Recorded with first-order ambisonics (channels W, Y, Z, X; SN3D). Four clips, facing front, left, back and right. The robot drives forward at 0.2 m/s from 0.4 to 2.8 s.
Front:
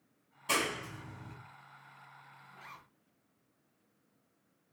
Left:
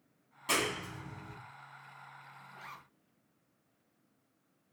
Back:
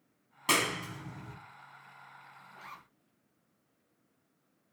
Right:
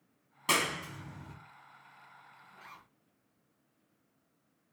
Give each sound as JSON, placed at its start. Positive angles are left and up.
{"t": 0.5, "sound": "a clap", "azimuth_deg": -150, "distance_m": 0.9}
{"t": 2.5, "sound": "a zipper", "azimuth_deg": 125, "distance_m": 0.6}